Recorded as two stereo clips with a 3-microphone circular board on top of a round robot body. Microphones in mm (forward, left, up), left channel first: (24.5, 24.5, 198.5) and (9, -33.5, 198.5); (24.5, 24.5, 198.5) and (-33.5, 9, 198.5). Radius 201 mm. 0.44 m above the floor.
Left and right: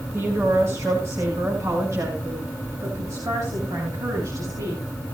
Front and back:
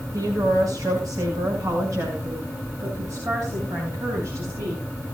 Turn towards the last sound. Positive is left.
turn(degrees=-130)